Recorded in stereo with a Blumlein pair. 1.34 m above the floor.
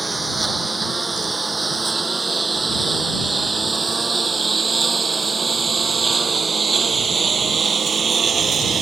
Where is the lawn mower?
10° right; by 8.8 s 20° right.